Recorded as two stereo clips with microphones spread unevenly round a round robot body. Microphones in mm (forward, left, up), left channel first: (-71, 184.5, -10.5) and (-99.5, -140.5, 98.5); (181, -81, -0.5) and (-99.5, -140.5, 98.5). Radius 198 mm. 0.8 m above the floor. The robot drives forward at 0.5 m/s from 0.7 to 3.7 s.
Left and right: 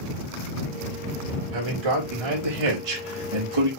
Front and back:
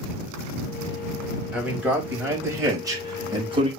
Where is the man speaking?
80° right, 4.5 m; by 3.7 s 90° right, 4.5 m.